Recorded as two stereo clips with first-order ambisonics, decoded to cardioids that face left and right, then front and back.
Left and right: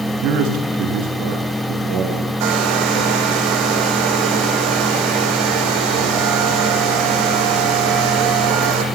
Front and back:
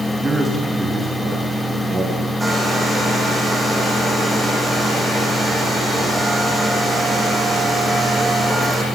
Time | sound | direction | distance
0.2 | a man speaking | 105° right | 6.5 m
2.4 | a hair dryer | 100° right | 5.5 m